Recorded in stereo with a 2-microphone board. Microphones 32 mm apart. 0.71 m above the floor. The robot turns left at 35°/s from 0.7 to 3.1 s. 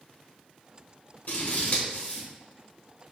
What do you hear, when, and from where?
1.3 s scissors: 80° left, 1.0 m; by 2.3 s 45° left (ahead or behind), 1.0 m